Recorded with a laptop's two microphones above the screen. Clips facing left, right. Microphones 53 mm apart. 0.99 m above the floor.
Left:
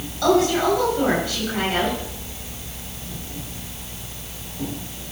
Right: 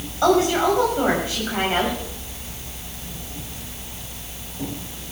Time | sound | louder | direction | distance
0.2 | a woman speaking | even | 25° right (ahead or behind) | 6.5 m